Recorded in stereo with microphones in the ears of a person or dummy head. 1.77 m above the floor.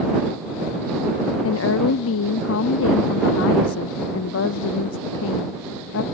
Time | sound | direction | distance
1.4 | a woman speaking | 75° left (ahead or behind) | ?